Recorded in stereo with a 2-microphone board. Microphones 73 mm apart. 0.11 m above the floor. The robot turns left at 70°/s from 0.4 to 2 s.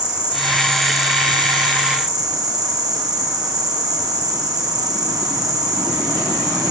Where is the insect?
10° right, 1.6 m; by 6.7 s 125° right, 1.6 m.